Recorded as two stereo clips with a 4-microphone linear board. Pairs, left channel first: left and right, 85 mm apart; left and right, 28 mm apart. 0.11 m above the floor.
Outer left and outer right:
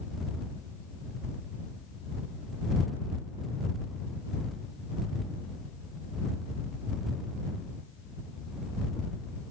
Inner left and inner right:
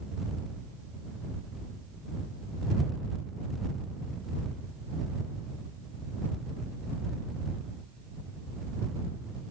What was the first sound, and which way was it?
Only background noise.